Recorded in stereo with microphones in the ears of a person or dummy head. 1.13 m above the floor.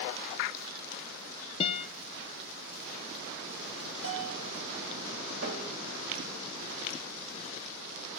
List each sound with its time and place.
1.6 s a guitar: 30° left (ahead or behind), 0.6 m
4.0 s a bell: 75° right (ahead or behind), 4 m
5.4 s tapping: 70° right (ahead or behind), 2 m